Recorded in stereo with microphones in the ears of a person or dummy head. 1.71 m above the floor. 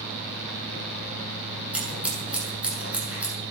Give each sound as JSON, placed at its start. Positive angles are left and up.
{"t": 1.7, "sound": "scissors", "side_deg": 0, "distance_m": 8.5}